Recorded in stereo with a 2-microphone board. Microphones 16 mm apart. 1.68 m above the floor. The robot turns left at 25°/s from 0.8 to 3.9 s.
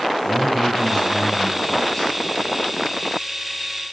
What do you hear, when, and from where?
0.2 s a man speaking: 175° left, 7 m; by 2.1 s 145° left, 7 m